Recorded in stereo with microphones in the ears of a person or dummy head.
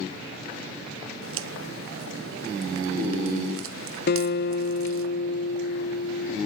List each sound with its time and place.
1.2 s a crack: 65° right (ahead or behind), 1.2 m
4.1 s a guitar: 55° left (ahead or behind), 1.0 m